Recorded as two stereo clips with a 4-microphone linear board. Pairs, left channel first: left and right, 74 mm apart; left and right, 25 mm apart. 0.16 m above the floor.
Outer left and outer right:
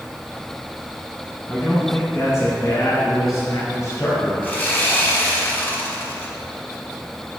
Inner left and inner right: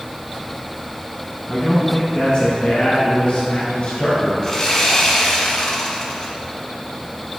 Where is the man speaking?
30° left (ahead or behind), 1.4 m; by 4.3 s 45° left (ahead or behind), 2 m.